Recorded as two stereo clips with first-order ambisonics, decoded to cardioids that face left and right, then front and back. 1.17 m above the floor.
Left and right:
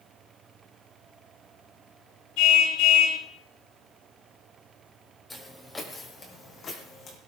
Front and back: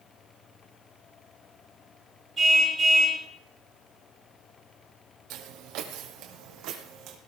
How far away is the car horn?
About 8 m.